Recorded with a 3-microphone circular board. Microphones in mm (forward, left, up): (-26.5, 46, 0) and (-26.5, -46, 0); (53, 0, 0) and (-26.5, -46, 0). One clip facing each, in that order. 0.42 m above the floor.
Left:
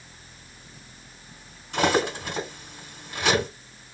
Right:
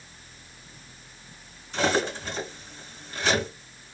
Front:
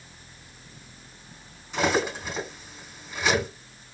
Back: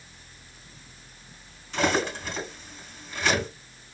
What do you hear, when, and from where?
1.7 s cutlery clinking: 110° left, 2 m